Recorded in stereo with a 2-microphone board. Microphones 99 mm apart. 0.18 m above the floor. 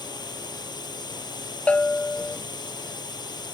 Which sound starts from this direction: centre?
A bell, at 1.7 s.